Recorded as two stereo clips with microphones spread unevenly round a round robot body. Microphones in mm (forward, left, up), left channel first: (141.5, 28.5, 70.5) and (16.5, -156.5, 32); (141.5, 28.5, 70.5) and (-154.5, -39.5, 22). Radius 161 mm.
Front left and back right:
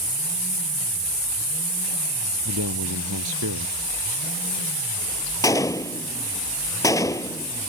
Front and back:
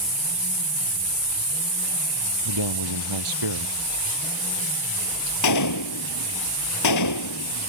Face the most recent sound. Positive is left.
turn(degrees=-20)